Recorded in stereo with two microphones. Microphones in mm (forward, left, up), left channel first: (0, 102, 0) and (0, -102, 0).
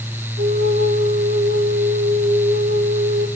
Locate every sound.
0.4 s a flute: 50° right (ahead or behind), 9 m